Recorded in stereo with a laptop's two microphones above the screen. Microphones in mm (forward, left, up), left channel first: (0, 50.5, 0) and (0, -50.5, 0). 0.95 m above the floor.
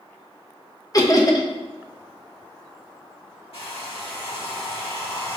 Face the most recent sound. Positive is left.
turn(degrees=70)  # may be behind; listen again after turning